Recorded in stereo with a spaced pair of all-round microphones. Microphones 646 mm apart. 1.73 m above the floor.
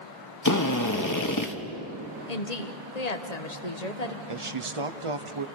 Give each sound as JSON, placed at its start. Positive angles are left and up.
{"t": 0.5, "sound": "a drill", "side_deg": 30, "distance_m": 1.3}
{"t": 2.3, "sound": "a woman speaking", "side_deg": 75, "distance_m": 1.5}
{"t": 4.3, "sound": "a man speaking", "side_deg": -50, "distance_m": 1.1}